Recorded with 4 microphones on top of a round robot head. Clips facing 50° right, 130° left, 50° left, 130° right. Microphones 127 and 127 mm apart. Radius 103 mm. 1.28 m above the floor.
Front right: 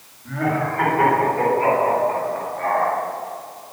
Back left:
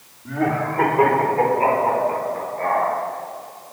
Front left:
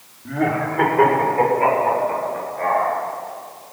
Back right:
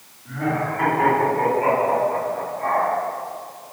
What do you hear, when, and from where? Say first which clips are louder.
0.2 s laughter: back left 1 dB, front left 3 dB; 60° left, 3 m; by 2.9 s 75° left, 7 m